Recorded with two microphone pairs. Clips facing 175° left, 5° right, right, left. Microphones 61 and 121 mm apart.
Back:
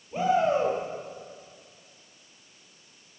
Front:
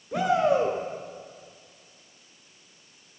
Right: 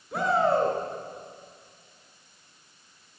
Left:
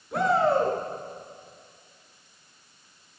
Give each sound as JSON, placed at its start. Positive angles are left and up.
{"t": 0.1, "sound": "a shout", "azimuth_deg": -5, "distance_m": 5.0}